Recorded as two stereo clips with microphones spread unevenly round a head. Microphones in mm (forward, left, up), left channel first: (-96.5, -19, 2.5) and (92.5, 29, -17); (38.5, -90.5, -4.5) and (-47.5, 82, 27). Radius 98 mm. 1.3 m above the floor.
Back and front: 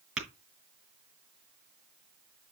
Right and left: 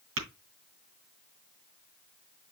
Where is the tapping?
100° left, 5.5 m.